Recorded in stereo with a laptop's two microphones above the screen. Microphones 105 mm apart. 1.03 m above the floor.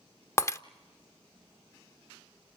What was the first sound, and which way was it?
Breaking glass, 25° left (ahead or behind).